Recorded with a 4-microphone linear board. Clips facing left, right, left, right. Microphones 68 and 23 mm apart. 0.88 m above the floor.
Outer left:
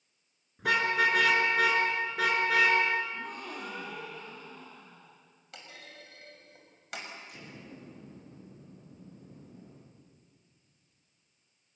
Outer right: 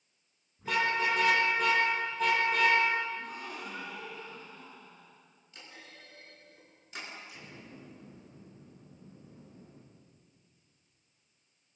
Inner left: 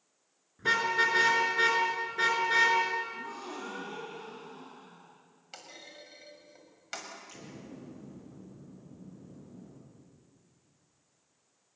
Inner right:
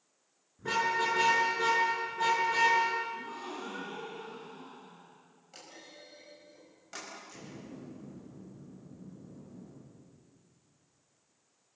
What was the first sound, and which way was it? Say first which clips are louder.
A car horn: outer left 3 dB, inner left 3 dB; 80° left.